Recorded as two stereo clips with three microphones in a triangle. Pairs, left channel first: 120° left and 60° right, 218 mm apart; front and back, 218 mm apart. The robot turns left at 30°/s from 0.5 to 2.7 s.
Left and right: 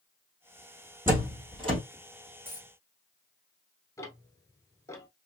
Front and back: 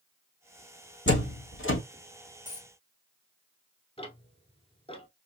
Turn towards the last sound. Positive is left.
turn(degrees=50)